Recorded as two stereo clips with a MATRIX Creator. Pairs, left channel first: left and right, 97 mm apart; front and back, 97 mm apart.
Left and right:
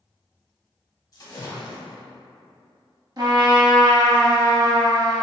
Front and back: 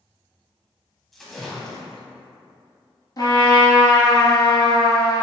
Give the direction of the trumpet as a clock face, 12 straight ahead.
1 o'clock.